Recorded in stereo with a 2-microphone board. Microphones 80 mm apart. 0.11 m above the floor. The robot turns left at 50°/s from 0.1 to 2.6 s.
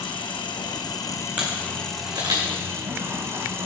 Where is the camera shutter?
15° right (ahead or behind), 4 m; by 2.5 s 70° right (ahead or behind), 4 m.